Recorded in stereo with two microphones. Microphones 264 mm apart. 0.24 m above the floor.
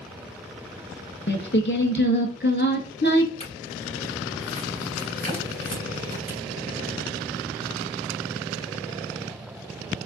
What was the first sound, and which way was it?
Singing, 45° left (ahead or behind).